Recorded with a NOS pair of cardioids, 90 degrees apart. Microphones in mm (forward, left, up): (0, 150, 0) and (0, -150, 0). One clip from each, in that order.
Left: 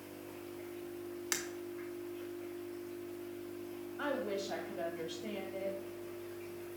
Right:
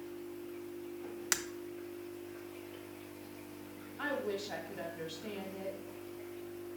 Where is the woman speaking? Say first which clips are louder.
Even; 5° left, 1.9 m.